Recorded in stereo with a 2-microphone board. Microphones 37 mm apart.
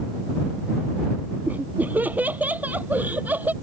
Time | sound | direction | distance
1.5 | laughter | 55° right (ahead or behind) | ?